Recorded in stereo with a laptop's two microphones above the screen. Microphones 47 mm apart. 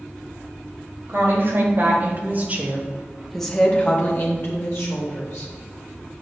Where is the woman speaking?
60° right (ahead or behind), 2.5 m; by 5.5 s 70° left (ahead or behind), 2.5 m.